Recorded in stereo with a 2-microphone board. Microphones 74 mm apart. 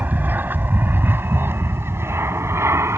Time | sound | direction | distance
0.0 | an aircraft | 25° right (ahead or behind) | ?